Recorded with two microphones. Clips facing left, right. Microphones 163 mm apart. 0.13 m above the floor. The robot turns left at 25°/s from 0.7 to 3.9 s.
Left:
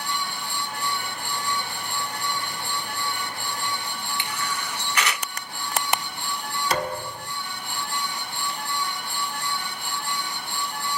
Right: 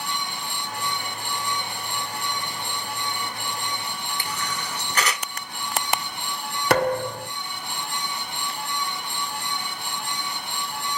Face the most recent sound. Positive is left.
turn(degrees=-65)  # may be behind; listen again after turning